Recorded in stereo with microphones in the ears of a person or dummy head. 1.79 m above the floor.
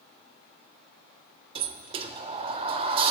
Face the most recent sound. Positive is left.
turn(degrees=-30)  # may be behind; listen again after turning